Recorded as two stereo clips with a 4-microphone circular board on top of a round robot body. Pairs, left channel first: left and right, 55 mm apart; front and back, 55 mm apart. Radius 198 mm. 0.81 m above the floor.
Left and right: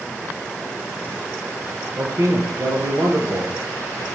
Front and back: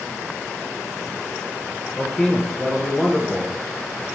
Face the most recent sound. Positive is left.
turn(degrees=-75)